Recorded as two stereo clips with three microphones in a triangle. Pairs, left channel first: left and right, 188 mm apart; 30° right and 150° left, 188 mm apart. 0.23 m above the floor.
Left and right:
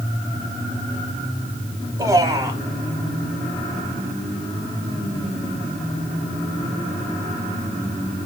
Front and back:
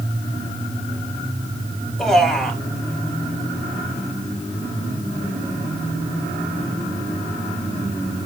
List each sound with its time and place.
2.0 s a man speaking: 115° right, 1.1 m